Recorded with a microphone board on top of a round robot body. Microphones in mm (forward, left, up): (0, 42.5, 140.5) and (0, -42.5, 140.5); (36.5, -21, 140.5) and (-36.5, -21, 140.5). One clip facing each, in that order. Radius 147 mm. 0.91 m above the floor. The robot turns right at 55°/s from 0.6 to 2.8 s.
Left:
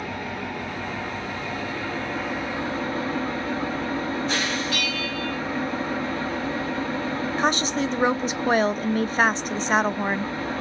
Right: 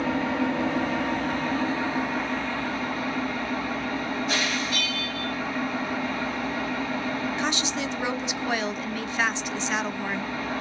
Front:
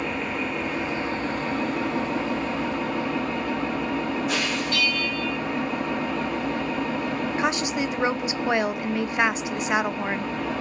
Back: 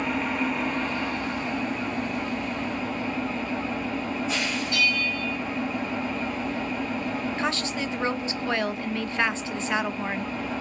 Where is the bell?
105° left, 1.0 m.